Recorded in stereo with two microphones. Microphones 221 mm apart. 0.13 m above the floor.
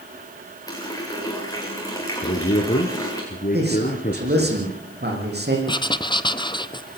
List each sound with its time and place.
0.7 s a running tap: 15° left (ahead or behind), 8 m
2.2 s a man speaking: 40° left (ahead or behind), 2.5 m
3.5 s a man speaking: 50° right (ahead or behind), 8.5 m
5.7 s writing: 20° left (ahead or behind), 0.8 m